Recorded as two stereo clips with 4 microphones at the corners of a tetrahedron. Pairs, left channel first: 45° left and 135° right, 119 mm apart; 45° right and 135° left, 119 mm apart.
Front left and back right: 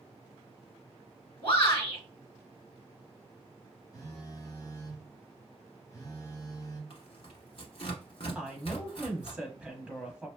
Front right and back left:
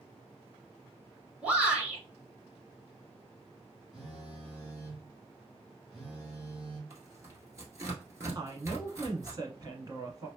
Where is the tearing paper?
75° left, 1.2 m.